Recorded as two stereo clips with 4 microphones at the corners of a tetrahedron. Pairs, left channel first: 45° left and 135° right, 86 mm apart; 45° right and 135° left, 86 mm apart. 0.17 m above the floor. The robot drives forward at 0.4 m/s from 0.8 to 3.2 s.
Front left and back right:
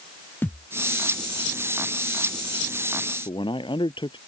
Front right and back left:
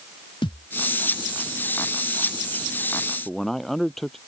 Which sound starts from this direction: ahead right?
A thud, at 0.4 s.